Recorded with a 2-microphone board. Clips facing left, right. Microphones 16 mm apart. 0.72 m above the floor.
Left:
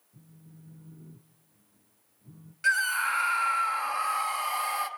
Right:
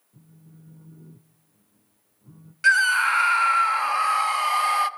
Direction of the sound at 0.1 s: 30° right (ahead or behind).